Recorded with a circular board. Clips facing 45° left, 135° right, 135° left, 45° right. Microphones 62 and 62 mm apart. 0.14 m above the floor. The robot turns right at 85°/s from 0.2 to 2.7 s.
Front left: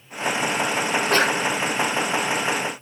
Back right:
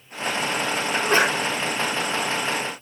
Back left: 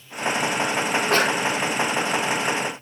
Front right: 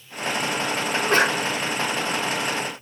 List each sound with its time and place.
0.9 s a sneeze: 110° right, 1.8 m; by 1.4 s 70° right, 1.8 m